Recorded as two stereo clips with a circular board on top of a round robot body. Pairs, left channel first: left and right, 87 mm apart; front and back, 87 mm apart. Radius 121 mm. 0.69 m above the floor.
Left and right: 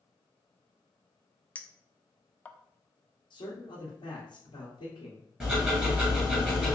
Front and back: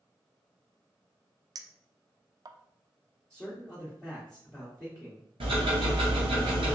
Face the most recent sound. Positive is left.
turn(degrees=-170)